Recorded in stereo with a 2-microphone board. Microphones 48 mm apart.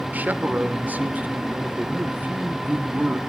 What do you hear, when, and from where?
0.1 s a man speaking: 35° right (ahead or behind), 0.9 m